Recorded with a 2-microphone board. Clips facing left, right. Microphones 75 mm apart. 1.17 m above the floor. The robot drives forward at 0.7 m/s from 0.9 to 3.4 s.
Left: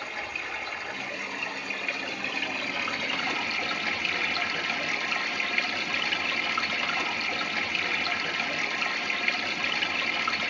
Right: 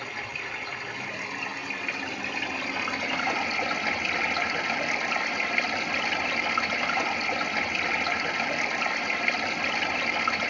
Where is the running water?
5° right (ahead or behind), 2.5 m; by 10.5 s 15° right (ahead or behind), 0.7 m.